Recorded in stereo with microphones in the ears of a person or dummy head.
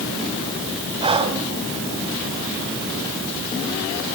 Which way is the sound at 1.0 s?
30° right (ahead or behind).